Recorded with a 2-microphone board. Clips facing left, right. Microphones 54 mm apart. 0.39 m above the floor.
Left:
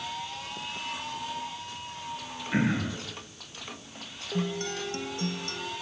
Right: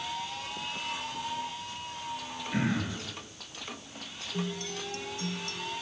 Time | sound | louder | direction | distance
2.5 | throat clearing | left 3 dB | 30° left (ahead or behind) | 7 m
4.3 | a guitar | left 4 dB | 50° left (ahead or behind) | 2.0 m